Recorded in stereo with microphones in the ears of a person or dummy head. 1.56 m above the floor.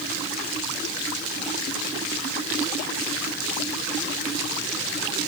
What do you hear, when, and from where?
Only background noise.